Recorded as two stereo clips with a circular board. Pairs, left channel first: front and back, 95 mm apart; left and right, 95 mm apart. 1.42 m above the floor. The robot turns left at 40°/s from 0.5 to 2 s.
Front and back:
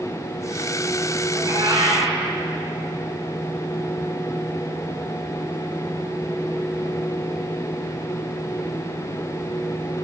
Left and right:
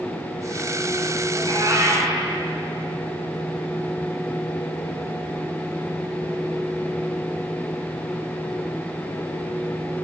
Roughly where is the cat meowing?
Behind right.